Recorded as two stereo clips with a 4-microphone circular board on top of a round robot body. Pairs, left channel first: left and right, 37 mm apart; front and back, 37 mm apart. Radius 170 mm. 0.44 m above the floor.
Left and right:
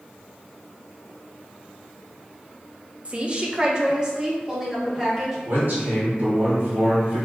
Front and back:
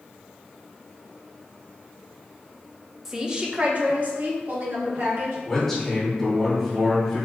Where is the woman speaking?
110° right, 0.9 m; by 5.3 s 170° right, 1.8 m.